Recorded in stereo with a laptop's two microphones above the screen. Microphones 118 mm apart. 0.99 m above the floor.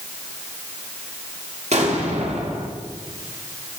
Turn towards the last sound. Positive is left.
turn(degrees=-65)  # may be behind; listen again after turning